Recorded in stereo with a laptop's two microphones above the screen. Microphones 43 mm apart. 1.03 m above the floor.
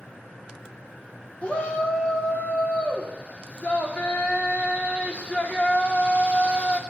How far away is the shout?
About 2 m.